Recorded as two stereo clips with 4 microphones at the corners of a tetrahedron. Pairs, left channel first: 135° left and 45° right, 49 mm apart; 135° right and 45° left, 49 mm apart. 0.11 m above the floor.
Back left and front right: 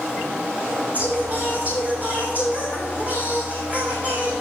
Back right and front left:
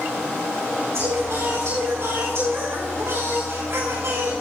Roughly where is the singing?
Ahead.